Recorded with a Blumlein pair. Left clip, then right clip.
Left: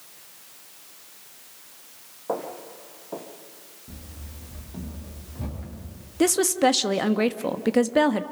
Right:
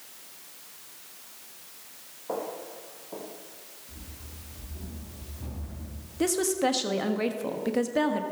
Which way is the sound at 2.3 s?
20° left.